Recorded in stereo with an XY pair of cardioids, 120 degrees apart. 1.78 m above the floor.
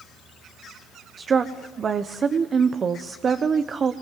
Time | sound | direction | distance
1.2 | a woman speaking | 35° right | 1.2 m